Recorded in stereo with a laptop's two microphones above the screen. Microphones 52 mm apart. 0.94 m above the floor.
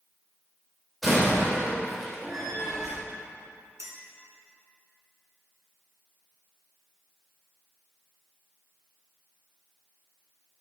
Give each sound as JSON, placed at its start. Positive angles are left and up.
{"t": 1.0, "sound": "a door slam", "side_deg": 0, "distance_m": 2.5}
{"t": 3.8, "sound": "a clink", "side_deg": -70, "distance_m": 1.3}